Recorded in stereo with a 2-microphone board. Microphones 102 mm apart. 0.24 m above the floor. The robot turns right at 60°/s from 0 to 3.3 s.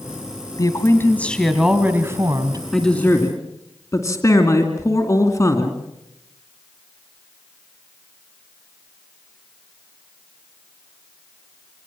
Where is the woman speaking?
125° left, 1.8 m; by 2.6 s 115° right, 1.8 m.